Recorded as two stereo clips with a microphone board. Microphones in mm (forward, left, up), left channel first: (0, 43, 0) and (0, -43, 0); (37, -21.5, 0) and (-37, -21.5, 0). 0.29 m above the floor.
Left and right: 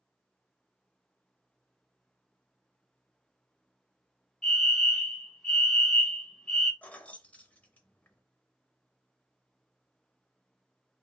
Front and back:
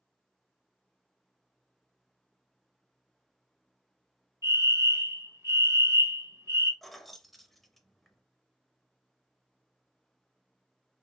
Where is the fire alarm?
Straight behind, 2.5 m.